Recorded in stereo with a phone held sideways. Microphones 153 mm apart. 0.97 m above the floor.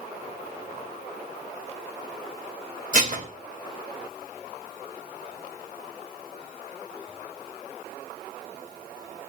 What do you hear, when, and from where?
2.9 s dishes clattering: 55° right (ahead or behind), 2.5 m